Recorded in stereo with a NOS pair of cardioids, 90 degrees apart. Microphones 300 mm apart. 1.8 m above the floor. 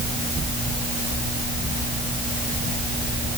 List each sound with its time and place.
Only background noise.